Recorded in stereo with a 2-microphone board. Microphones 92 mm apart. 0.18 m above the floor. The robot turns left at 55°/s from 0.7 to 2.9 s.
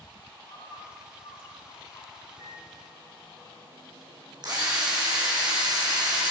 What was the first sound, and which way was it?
A bird, 125° left.